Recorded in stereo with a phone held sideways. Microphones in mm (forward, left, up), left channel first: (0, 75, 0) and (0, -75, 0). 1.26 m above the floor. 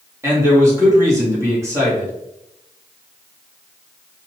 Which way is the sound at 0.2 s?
20° right (ahead or behind).